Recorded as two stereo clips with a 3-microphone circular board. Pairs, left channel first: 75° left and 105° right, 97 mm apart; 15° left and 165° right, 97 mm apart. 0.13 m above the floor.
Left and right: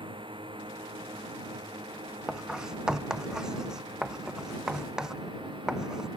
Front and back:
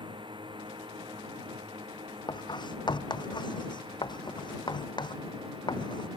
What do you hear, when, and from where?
0.0 s a drone: 135° right
2.3 s writing: 20° right